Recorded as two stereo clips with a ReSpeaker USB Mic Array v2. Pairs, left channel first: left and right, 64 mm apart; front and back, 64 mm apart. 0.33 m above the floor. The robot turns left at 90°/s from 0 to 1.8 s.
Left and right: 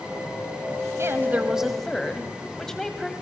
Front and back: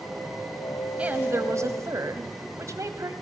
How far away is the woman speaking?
About 2 m.